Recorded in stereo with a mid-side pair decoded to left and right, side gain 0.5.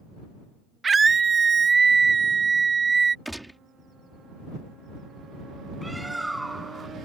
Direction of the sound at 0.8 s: 30° right.